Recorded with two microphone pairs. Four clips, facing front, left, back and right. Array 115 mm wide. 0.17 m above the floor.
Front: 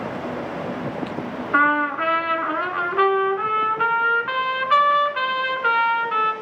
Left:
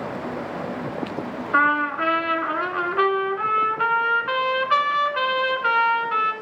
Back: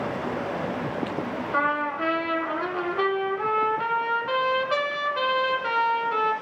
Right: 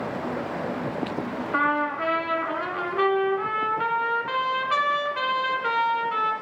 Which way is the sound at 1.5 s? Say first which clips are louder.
Left 4 dB, front 7 dB; 30° left.